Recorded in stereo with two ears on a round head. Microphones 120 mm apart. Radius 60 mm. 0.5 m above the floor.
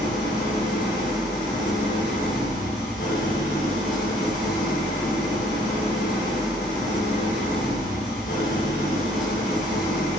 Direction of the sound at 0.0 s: 75° left (ahead or behind).